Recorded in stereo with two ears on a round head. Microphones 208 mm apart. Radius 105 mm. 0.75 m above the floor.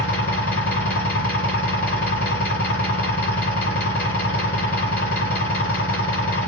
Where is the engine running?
40° left (ahead or behind), 1.8 m.